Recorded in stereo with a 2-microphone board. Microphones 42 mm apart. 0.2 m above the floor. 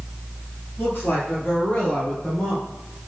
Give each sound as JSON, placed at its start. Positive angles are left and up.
{"t": 0.8, "sound": "a woman speaking", "side_deg": 55, "distance_m": 3.5}